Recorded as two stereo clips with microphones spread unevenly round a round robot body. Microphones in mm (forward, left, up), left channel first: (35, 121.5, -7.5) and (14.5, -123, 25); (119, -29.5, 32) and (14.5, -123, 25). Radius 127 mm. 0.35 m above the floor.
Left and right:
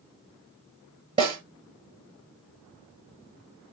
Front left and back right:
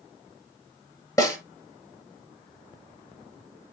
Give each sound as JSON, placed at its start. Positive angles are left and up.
{"t": 1.2, "sound": "a snare drum", "azimuth_deg": -25, "distance_m": 4.5}